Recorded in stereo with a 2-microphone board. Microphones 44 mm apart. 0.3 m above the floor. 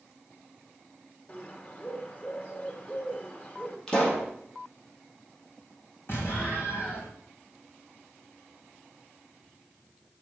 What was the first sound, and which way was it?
A bird, 30° left (ahead or behind).